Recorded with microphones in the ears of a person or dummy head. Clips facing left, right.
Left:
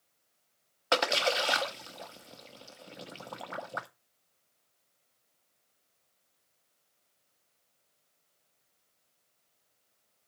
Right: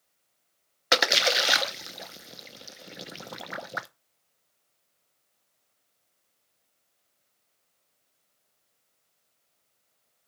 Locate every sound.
0.9 s a splash: 20° right (ahead or behind), 0.7 m